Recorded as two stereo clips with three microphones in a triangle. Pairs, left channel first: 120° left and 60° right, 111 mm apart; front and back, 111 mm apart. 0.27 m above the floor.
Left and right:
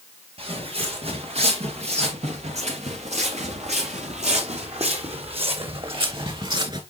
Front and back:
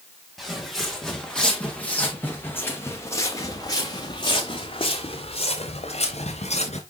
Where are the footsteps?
90° right, 3.5 m; by 6.8 s 15° right, 3 m.